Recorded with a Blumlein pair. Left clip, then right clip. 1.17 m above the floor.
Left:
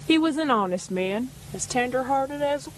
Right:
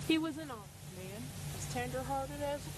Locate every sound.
0.1 s a woman speaking: 65° left; by 2.7 s 30° left